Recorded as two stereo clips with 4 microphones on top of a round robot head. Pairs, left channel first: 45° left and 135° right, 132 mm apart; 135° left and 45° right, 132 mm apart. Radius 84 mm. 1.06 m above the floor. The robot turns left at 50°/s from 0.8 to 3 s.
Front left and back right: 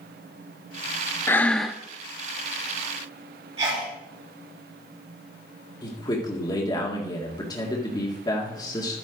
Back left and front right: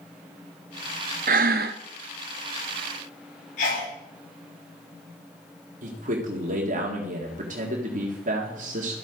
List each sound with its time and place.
1.3 s breathing: 25° right, 0.6 m; by 1.8 s 50° right, 0.6 m
3.6 s a sneeze: 160° left, 7.5 m
5.8 s a man speaking: 15° right, 1.9 m